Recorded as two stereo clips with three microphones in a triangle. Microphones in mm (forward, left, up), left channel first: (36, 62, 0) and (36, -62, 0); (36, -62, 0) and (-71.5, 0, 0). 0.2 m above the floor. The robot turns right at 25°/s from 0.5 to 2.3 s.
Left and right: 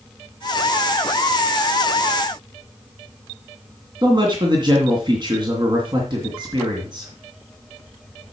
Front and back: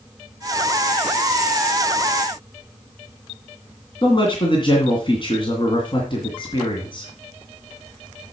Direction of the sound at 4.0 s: 55° right.